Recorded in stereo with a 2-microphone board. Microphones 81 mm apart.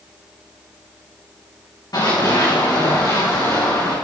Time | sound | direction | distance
1.9 | running footsteps | 55° left (ahead or behind) | 6 m